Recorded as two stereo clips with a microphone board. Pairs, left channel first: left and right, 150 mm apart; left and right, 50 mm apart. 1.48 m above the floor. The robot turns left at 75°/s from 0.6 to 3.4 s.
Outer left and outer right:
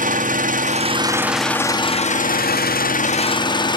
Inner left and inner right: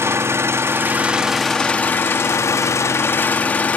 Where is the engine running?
120° right, 0.8 m; by 3.8 s 30° left, 0.8 m.